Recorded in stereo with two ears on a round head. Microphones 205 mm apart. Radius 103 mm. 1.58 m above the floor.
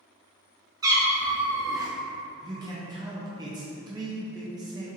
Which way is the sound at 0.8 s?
15° right (ahead or behind).